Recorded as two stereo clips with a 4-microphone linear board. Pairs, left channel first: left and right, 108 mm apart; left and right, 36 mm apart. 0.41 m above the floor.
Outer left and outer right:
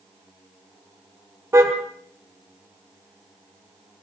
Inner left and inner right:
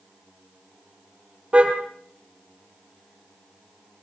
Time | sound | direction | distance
1.5 | a car horn | 25° right (ahead or behind) | 4.5 m